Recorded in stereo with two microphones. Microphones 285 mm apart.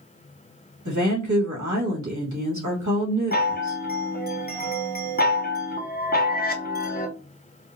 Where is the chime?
30° left (ahead or behind), 0.7 m.